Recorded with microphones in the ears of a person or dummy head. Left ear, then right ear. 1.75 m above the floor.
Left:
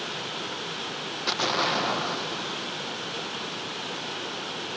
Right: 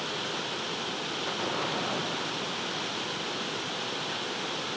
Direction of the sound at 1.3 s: 75° left (ahead or behind).